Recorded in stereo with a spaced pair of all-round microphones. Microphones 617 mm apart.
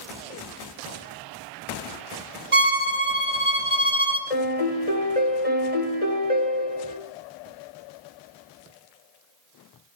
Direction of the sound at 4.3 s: 65° left (ahead or behind).